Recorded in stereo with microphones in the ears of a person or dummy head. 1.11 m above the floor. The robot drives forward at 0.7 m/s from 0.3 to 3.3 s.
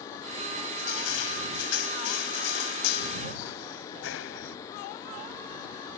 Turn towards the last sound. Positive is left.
turn(degrees=75)  # may be behind; listen again after turning